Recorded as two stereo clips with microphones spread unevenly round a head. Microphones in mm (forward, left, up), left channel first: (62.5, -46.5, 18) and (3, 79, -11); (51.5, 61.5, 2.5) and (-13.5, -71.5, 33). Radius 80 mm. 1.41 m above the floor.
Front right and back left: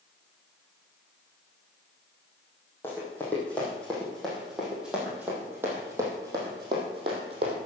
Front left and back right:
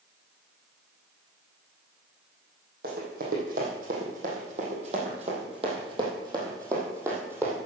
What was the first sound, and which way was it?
Running footsteps, 135° right.